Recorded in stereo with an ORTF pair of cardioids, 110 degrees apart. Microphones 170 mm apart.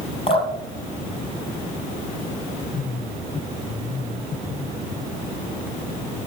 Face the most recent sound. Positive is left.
turn(degrees=35)